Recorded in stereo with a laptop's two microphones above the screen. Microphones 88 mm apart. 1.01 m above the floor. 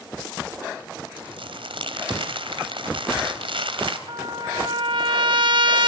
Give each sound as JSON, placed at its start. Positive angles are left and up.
{"t": 1.2, "sound": "crumpling", "side_deg": -75, "distance_m": 3.5}
{"t": 4.1, "sound": "a trumpet", "side_deg": -65, "distance_m": 1.5}